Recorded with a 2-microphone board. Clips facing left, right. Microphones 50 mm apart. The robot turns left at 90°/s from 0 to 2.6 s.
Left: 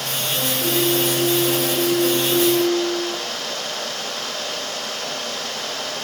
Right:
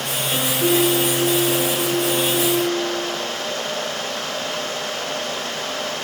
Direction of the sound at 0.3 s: 125° right.